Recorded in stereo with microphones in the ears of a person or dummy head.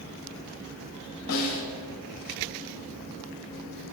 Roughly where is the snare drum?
Left.